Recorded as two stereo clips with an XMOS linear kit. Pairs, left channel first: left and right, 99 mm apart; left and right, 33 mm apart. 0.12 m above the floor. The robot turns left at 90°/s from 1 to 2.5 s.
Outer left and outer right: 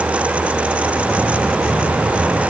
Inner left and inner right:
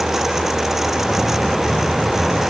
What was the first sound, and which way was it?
Only background noise.